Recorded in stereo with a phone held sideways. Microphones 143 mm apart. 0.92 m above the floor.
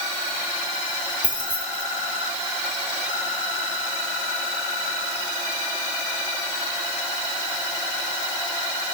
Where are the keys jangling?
10° right (ahead or behind), 3.5 m.